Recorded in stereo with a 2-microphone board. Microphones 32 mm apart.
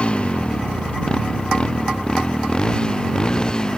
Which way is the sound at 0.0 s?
35° left (ahead or behind).